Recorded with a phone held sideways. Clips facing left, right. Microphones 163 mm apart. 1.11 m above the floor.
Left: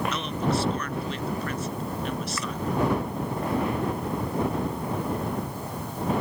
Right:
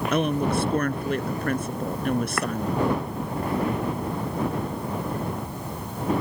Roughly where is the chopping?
Right.